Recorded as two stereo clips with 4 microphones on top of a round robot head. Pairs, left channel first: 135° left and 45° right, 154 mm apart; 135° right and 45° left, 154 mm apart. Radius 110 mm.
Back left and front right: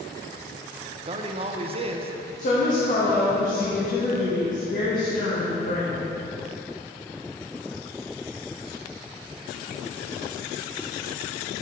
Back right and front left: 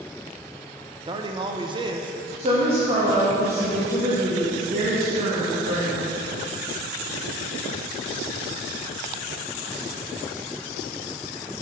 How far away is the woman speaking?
About 1.3 m.